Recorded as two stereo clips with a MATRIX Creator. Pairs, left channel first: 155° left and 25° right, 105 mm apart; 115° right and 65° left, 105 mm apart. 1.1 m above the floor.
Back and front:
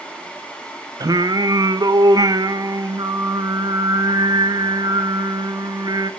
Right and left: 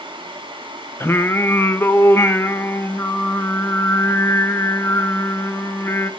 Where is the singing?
55° right, 0.5 m.